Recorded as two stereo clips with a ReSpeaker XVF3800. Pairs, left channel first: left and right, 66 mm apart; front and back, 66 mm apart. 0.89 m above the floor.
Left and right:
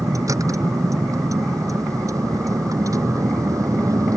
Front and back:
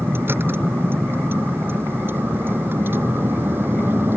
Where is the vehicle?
125° right.